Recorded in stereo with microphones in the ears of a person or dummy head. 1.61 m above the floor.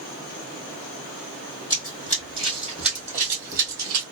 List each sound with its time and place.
1.7 s running footsteps: 20° left (ahead or behind), 2.0 m; by 4.0 s 20° right (ahead or behind), 1.8 m